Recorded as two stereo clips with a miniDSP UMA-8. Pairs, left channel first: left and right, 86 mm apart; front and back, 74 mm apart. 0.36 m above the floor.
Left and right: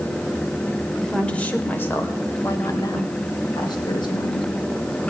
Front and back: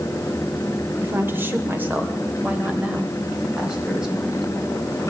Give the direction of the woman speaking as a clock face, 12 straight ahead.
6 o'clock.